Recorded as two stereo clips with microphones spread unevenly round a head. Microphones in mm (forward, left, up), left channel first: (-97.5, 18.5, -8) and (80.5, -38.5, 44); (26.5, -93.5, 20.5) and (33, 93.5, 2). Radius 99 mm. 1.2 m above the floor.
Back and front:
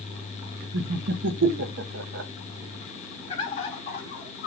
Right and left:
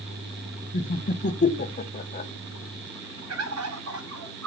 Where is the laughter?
45° right, 1.0 m.